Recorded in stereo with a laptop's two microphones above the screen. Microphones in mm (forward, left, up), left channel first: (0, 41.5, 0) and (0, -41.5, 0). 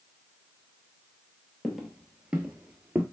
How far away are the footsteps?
About 1.0 m.